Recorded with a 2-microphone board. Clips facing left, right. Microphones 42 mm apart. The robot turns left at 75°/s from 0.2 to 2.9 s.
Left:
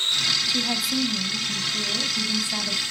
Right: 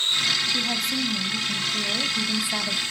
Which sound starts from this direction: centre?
A woman speaking, at 0.5 s.